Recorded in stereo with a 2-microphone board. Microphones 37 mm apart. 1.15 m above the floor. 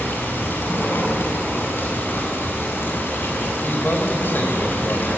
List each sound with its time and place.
0.0 s running water: 85° left, 7.5 m
3.6 s a man speaking: 75° left (ahead or behind), 4.5 m